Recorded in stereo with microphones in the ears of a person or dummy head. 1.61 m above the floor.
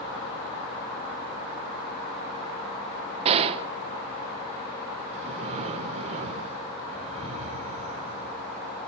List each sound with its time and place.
3.2 s a gunshot: 30° right (ahead or behind), 1.2 m
5.1 s breathing: 30° right (ahead or behind), 3.5 m